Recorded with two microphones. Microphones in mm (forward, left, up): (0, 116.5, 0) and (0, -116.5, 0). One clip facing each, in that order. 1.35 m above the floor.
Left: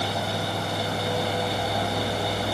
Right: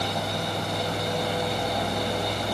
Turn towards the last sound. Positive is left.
No sound to turn to.